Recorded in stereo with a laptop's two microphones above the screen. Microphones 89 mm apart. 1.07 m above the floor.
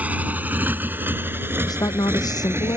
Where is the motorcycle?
15° right (ahead or behind); by 2.8 s 25° right (ahead or behind).